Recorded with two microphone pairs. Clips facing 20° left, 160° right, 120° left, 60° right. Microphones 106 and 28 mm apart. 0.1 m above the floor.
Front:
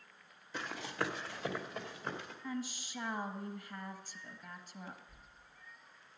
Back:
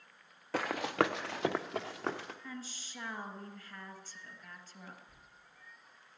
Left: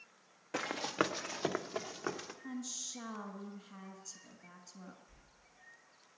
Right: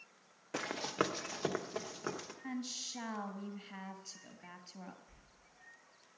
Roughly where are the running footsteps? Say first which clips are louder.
Back 8 dB, left 1 dB; behind right.